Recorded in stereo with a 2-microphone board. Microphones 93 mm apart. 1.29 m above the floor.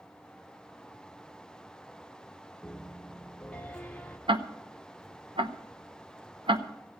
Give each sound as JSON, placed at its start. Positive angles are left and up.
{"t": 2.6, "sound": "a piano", "side_deg": 15, "distance_m": 0.9}
{"t": 4.3, "sound": "ticking", "side_deg": -65, "distance_m": 0.9}